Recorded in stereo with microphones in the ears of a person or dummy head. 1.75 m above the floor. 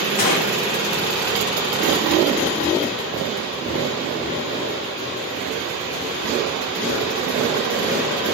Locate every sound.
0.2 s a gunshot: 45° left (ahead or behind), 0.6 m